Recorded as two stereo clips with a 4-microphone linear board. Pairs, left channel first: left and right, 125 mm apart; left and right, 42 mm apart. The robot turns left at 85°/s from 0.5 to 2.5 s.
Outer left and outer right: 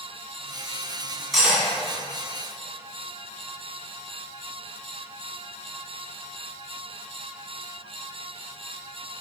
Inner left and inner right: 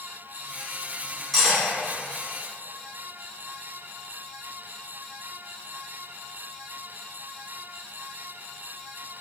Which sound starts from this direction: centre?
Cutlery clinking, at 1.3 s.